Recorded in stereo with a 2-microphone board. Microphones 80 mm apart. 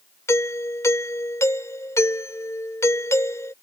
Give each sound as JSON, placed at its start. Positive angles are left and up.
{"t": 0.3, "sound": "a doorbell", "side_deg": 40}